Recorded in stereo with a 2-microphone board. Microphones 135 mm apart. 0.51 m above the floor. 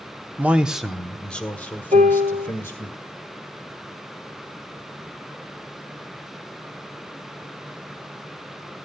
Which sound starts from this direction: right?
A piano, at 1.9 s.